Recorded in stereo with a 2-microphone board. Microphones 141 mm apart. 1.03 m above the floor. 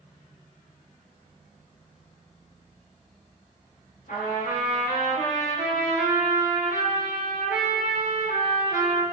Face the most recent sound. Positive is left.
turn(degrees=85)